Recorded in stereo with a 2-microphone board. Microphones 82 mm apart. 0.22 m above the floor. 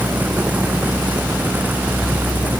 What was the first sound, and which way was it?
Only background noise.